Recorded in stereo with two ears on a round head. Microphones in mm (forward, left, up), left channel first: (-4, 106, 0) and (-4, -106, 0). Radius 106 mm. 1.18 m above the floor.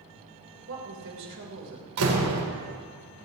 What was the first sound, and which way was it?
A woman speaking, 55° right (ahead or behind).